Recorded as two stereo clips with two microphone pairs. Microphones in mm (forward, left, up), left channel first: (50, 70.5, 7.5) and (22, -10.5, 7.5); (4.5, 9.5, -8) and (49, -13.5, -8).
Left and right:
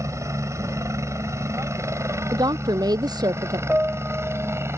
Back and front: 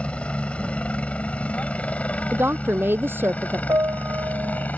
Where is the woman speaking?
70° right.